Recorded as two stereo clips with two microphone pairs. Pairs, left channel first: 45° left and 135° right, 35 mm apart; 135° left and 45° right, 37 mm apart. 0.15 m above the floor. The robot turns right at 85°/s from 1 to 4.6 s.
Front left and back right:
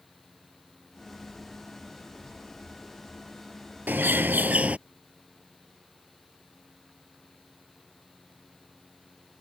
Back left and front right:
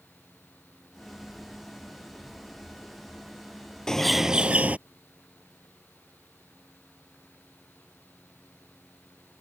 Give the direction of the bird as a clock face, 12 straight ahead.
5 o'clock.